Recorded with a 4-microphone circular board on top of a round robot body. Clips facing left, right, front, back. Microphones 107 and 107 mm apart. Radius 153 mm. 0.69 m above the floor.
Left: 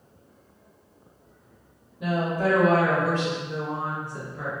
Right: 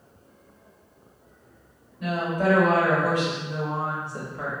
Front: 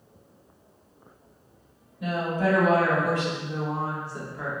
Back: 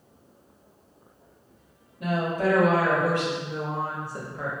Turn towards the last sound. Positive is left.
turn(degrees=-130)